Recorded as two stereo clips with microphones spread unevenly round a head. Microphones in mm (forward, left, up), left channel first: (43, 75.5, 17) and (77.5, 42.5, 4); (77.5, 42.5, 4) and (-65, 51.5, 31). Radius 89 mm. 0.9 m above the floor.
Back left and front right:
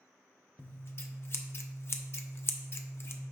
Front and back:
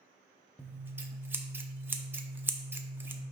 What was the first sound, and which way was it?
Scissors, 100° left.